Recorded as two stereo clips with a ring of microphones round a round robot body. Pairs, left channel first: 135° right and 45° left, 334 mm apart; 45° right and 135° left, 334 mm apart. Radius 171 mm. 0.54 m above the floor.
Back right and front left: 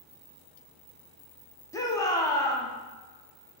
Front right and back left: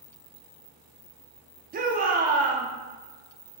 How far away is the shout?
About 0.6 m.